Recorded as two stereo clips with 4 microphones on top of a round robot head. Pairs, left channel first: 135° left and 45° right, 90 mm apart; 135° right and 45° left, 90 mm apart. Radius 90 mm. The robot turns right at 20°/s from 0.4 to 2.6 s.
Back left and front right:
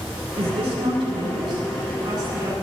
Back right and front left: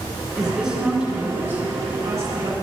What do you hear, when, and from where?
0.3 s a woman speaking: 40° right, 7 m; by 2.5 s 5° left, 7 m